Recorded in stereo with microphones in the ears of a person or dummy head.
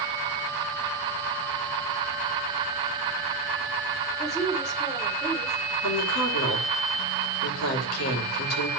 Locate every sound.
4.2 s a woman speaking: 5° left (ahead or behind), 4.5 m
5.8 s a woman speaking: 85° left, 2.5 m